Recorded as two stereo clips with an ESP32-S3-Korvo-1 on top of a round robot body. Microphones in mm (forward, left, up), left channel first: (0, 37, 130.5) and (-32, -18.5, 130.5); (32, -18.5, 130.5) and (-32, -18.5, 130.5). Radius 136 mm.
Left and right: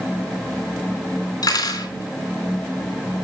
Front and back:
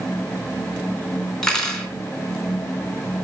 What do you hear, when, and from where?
1.4 s cutlery clinking: 80° left, 3 m